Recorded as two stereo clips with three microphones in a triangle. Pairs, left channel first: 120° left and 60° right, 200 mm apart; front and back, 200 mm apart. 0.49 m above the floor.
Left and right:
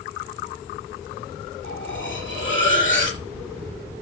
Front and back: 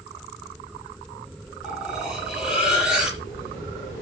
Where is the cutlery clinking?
90° left, 6.5 m.